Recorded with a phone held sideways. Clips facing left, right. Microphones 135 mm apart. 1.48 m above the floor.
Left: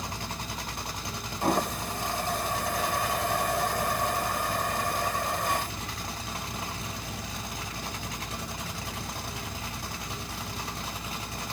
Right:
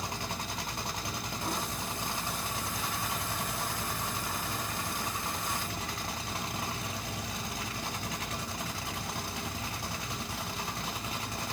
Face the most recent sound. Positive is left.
turn(degrees=70)  # may be behind; listen again after turning